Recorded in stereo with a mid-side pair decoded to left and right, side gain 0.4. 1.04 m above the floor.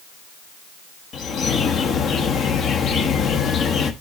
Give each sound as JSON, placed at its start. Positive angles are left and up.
{"t": 1.1, "sound": "a bird", "azimuth_deg": 70, "distance_m": 1.1}